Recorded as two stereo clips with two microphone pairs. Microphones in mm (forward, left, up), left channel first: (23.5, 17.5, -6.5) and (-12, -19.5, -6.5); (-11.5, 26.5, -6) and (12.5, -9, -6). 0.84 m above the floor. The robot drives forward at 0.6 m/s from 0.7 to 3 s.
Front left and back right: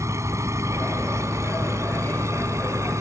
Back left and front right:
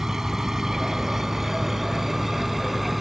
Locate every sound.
0.0 s an engine running: 135° right; by 3.0 s 140° right